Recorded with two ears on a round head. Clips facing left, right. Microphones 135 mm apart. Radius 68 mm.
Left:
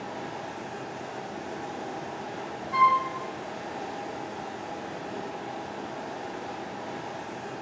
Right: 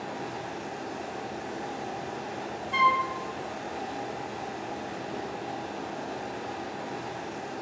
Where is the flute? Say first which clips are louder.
Left 2 dB; 30° right (ahead or behind), 0.9 m.